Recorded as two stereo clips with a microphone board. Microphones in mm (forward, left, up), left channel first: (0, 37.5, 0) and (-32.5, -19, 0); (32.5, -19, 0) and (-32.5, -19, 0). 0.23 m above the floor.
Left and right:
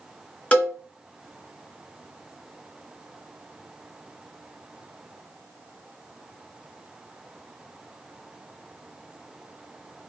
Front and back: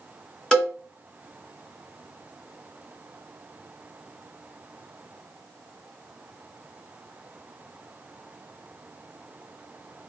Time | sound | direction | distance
0.5 | a cowbell | 65° left | 1.1 m